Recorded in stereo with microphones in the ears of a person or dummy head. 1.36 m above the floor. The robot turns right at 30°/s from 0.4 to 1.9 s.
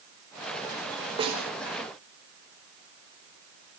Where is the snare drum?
30° right (ahead or behind), 5 m; by 1.4 s 35° right (ahead or behind), 5 m.